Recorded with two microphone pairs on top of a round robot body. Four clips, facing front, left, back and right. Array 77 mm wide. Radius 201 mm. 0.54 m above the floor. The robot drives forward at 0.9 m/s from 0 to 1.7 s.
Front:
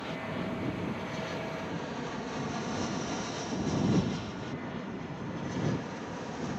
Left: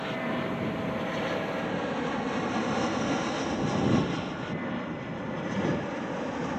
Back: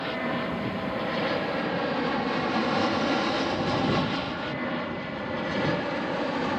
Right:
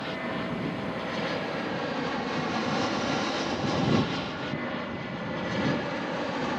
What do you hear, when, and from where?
0.0 s an aircraft: straight behind; by 6.6 s 160° right